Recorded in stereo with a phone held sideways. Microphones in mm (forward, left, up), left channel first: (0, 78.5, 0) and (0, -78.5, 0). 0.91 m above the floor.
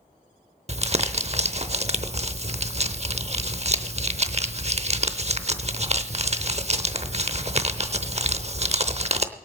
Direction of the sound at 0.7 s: 45° right (ahead or behind).